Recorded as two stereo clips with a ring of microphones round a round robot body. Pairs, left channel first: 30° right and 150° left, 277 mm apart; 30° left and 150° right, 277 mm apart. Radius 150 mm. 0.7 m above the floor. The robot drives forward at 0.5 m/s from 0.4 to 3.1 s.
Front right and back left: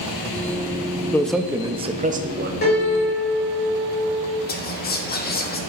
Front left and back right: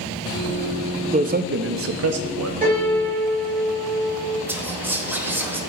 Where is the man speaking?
105° right, 0.6 m; by 2.5 s 160° right, 1.0 m.